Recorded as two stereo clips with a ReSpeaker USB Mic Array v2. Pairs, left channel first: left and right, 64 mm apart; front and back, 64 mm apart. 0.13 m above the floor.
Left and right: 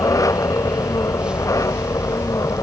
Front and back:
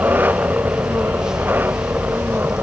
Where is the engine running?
120° left.